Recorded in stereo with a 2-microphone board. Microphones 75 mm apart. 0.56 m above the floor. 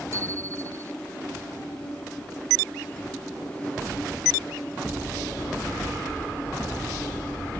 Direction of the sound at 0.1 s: 40° right (ahead or behind).